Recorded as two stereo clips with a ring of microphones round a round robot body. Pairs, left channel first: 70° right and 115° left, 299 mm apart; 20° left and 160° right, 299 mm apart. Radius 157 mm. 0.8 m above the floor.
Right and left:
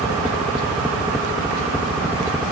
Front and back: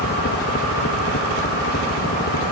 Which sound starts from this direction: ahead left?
A helicopter, at 0.0 s.